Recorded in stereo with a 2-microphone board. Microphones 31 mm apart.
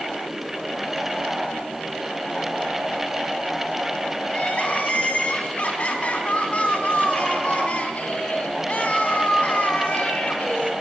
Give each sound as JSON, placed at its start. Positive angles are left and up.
{"t": 4.3, "sound": "crying", "side_deg": 40, "distance_m": 2.5}